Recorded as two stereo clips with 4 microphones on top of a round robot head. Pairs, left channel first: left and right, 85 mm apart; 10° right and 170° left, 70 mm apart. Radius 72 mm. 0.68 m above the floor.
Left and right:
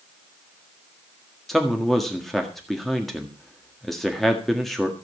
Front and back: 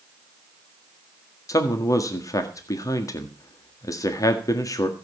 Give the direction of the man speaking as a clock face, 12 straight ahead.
12 o'clock.